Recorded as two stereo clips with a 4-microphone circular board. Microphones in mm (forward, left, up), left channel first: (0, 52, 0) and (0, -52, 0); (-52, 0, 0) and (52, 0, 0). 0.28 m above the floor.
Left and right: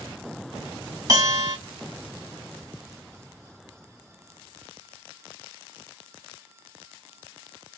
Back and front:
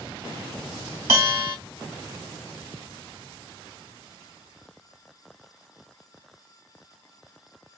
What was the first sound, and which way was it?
A bell, 60° right.